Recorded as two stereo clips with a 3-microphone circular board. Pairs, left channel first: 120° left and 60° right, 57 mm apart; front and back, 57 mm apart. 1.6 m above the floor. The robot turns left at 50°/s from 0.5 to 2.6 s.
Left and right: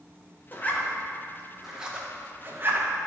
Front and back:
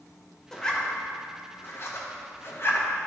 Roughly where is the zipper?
Left.